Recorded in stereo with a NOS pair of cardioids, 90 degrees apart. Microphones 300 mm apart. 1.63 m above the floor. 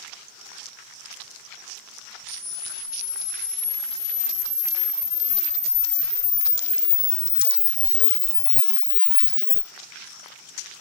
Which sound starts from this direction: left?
A camera shutter, at 2.3 s.